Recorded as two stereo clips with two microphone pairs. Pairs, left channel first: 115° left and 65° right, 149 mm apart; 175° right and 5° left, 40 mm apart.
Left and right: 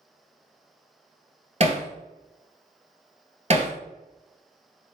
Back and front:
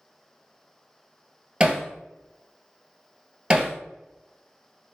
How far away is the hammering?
About 0.7 m.